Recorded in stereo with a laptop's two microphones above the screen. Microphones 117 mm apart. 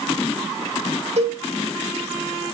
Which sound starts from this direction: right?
A cowbell, at 1.2 s.